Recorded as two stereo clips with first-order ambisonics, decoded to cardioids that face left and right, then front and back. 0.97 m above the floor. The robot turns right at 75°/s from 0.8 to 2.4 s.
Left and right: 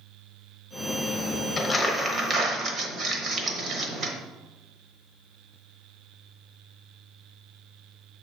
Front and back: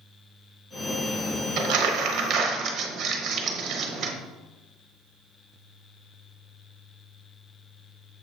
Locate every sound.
1.6 s crumpling: 165° left, 1.0 m; by 4.1 s 135° right, 1.0 m